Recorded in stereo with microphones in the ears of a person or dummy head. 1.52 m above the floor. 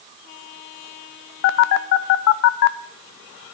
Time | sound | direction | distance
1.4 | a phone buzzing | 65° left (ahead or behind) | 0.5 m